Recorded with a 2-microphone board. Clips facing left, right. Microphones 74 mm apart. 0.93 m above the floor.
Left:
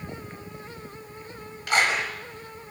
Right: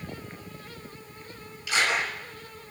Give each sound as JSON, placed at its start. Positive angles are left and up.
{"t": 1.7, "sound": "a clap", "side_deg": 55, "distance_m": 8.0}